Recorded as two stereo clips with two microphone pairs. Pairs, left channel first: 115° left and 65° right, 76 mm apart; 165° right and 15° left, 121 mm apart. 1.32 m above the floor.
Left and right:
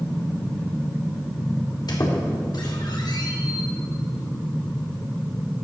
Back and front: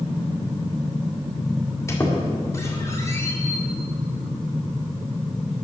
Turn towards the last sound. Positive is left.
turn(degrees=130)